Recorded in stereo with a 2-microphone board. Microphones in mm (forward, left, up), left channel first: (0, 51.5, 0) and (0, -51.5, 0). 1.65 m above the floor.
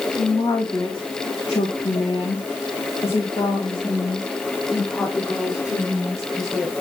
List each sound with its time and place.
0.2 s a woman speaking: 30° left (ahead or behind), 3 m